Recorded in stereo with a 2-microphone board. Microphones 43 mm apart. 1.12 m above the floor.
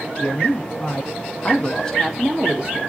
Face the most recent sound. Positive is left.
turn(degrees=-25)  # may be behind; listen again after turning